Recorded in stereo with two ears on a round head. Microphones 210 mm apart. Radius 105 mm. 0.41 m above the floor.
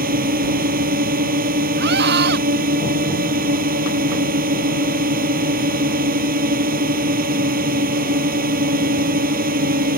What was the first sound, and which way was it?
A drone, 40° right (ahead or behind).